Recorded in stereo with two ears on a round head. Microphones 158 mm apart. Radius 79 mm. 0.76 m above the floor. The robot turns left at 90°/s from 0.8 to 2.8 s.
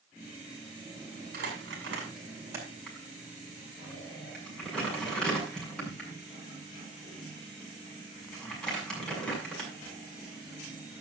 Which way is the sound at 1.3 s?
55° right (ahead or behind).